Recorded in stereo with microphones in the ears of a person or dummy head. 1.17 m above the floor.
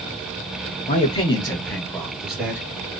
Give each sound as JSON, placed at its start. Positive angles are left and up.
{"t": 0.9, "sound": "a man speaking", "side_deg": 40, "distance_m": 0.9}